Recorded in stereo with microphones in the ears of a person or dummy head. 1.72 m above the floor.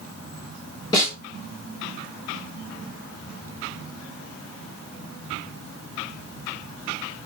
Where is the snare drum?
30° left (ahead or behind), 1.8 m.